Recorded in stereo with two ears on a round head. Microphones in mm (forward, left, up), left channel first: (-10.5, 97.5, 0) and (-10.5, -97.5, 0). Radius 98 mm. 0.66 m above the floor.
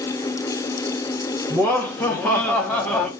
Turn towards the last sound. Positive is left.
turn(degrees=5)  # may be behind; listen again after turning